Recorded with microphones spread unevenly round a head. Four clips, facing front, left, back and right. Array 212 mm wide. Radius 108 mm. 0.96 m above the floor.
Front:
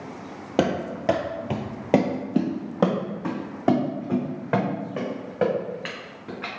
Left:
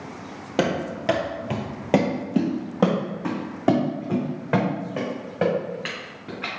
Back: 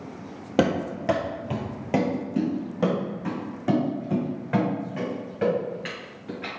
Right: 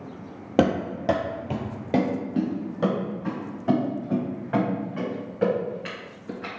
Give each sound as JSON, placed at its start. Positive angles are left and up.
{"t": 0.6, "sound": "running footsteps", "azimuth_deg": -165, "distance_m": 1.1}